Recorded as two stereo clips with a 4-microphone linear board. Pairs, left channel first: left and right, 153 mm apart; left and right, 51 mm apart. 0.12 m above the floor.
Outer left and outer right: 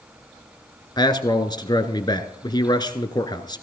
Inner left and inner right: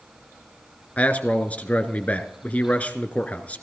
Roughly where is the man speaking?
Left.